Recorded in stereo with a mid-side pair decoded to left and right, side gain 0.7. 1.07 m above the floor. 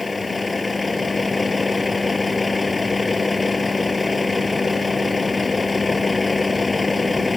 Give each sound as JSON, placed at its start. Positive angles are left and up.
{"t": 0.0, "sound": "a vehicle", "azimuth_deg": 10}